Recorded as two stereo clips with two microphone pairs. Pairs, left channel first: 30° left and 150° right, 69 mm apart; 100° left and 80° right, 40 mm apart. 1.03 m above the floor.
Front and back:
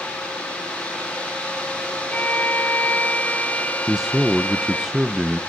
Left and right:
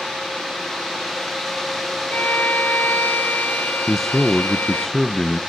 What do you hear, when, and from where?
2.1 s a violin: 95° left, 0.7 m
3.9 s a man speaking: 150° left, 0.6 m